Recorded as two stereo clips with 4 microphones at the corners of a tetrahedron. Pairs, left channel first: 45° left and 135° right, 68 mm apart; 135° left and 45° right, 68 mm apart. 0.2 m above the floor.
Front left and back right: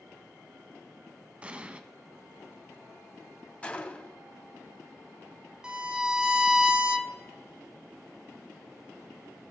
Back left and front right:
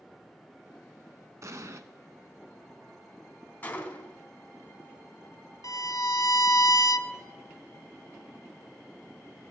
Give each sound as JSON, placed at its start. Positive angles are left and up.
{"t": 1.4, "sound": "an explosion", "azimuth_deg": -65, "distance_m": 0.6}
{"t": 3.6, "sound": "a gunshot", "azimuth_deg": 100, "distance_m": 0.8}
{"t": 5.6, "sound": "a violin", "azimuth_deg": 150, "distance_m": 0.6}